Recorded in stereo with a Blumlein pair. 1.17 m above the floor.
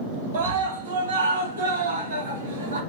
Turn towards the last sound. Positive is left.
turn(degrees=-80)